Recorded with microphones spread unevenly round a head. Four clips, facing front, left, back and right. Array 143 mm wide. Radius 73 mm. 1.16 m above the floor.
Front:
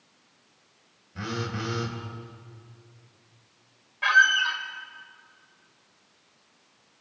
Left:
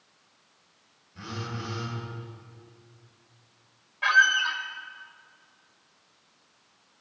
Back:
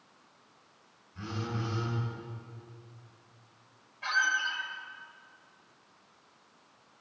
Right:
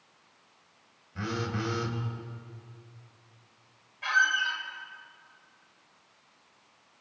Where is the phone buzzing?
30° right, 4.5 m.